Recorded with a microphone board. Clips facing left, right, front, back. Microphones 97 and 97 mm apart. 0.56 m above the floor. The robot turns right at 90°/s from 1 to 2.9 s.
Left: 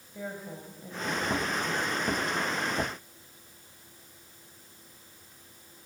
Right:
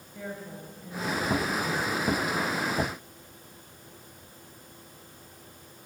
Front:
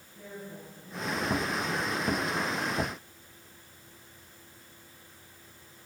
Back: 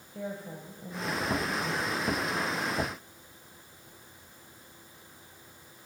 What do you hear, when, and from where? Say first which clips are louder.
0.1 s a woman speaking: even, back 5 dB; 165° left, 3.5 m; by 1.9 s 110° right, 3.5 m